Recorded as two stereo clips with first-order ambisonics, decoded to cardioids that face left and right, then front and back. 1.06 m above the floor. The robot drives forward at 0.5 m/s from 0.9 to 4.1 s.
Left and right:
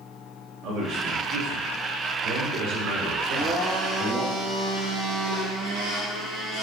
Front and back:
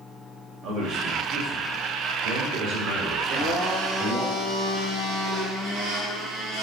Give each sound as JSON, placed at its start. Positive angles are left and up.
{"t": 0.6, "sound": "a man speaking", "azimuth_deg": -130, "distance_m": 2.5}
{"t": 3.2, "sound": "a blender", "azimuth_deg": -135, "distance_m": 3.0}